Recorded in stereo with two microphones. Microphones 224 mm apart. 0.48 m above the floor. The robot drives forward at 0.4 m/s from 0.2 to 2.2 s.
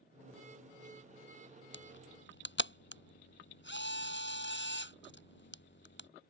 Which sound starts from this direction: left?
A camera shutter, at 1.7 s.